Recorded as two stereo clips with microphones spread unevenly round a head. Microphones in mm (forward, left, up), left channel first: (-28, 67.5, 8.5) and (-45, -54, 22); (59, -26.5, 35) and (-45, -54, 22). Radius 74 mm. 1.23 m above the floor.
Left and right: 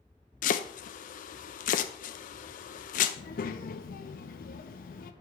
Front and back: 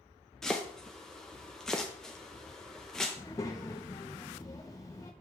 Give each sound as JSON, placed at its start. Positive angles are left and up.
{"t": 0.4, "sound": "chopping", "azimuth_deg": 100, "distance_m": 0.5}
{"t": 3.2, "sound": "a child speaking", "azimuth_deg": 80, "distance_m": 0.7}